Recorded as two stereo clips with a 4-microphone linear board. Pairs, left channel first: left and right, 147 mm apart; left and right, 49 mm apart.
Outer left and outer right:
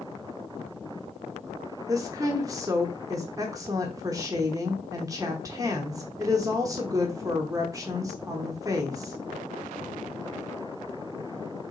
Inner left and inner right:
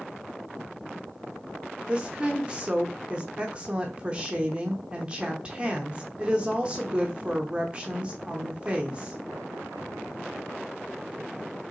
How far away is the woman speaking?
About 0.7 m.